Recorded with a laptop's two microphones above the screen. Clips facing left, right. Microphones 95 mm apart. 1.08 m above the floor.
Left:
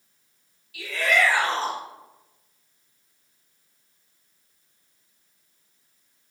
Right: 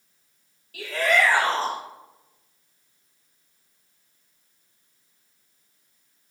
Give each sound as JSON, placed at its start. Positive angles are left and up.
{"t": 0.7, "sound": "a shout", "side_deg": -45, "distance_m": 3.5}